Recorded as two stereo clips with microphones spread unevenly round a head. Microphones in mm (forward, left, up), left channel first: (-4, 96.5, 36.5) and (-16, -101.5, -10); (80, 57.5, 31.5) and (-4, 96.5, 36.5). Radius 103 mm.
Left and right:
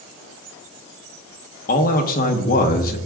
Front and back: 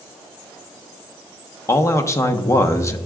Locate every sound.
1.7 s a man speaking: 35° left, 1.0 m